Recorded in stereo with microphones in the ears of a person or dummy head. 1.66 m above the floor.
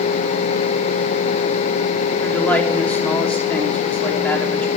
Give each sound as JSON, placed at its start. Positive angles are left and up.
{"t": 2.2, "sound": "a man speaking", "side_deg": 5, "distance_m": 3.0}